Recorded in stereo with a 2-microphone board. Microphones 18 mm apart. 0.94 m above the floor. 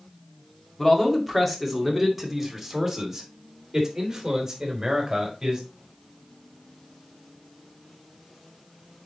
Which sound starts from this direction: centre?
A man speaking, at 0.8 s.